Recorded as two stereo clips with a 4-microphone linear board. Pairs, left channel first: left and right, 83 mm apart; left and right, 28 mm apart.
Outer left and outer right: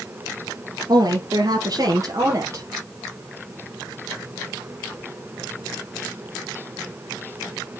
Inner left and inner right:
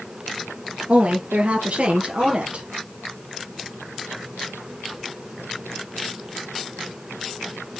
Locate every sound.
0.9 s a woman speaking: 60° right (ahead or behind), 2 m; by 2.6 s 40° right (ahead or behind), 3 m